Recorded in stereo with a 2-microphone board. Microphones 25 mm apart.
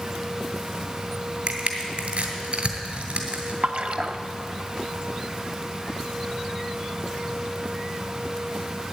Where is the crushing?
70° right (ahead or behind), 1.9 m.